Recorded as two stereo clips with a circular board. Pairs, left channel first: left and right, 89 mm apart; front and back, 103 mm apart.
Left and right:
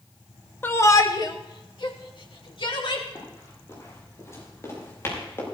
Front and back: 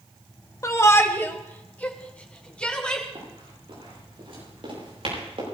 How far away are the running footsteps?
About 9.5 m.